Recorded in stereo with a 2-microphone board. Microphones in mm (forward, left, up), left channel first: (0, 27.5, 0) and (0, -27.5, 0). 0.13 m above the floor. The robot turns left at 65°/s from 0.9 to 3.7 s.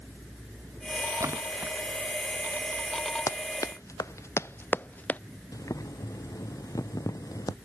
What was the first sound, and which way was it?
A splash, 65° right (ahead or behind).